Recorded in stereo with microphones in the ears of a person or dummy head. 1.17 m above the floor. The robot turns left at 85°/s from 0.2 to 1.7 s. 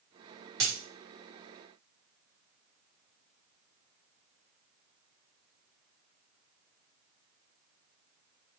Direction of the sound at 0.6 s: 65° right (ahead or behind).